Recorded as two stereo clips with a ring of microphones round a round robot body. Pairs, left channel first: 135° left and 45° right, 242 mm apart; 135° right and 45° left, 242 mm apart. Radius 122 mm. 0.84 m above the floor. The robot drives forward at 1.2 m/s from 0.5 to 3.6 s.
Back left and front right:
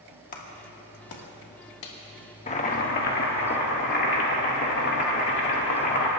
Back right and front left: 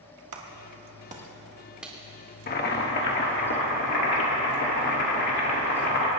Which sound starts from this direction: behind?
Boiling, at 2.5 s.